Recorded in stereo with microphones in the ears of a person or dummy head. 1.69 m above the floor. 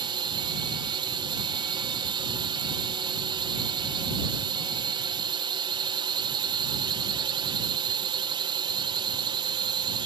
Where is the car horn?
No car horn in this recording.